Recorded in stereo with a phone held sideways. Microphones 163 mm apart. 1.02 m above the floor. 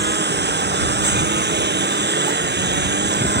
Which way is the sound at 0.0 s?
75° right (ahead or behind).